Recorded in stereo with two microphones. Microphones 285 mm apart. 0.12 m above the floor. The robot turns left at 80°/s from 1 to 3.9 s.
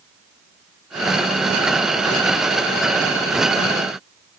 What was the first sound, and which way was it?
Only background noise.